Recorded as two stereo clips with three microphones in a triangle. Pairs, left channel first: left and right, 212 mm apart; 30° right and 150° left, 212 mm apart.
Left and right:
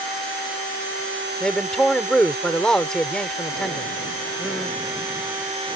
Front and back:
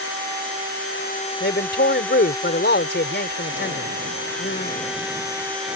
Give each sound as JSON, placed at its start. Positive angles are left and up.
{"t": 1.4, "sound": "a man speaking", "azimuth_deg": 5}